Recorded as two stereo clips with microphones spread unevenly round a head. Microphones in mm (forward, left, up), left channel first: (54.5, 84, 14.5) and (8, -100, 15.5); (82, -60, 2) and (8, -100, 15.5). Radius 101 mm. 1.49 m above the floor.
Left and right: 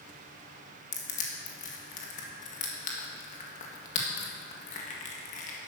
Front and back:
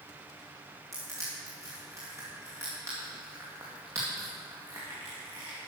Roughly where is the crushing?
Behind left.